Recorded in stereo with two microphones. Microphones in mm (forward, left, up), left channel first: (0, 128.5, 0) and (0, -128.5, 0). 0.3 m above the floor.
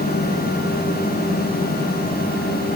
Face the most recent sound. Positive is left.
No sound to turn to.